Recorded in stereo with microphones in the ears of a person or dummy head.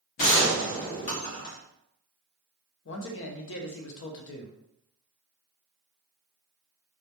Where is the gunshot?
45° left (ahead or behind), 0.8 m.